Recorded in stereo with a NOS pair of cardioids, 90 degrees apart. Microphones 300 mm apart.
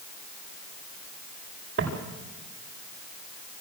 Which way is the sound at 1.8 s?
45° right.